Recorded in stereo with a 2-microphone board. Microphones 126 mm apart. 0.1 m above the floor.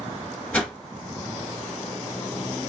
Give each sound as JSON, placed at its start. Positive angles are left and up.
{"t": 0.5, "sound": "a whoosh", "side_deg": 10, "distance_m": 1.3}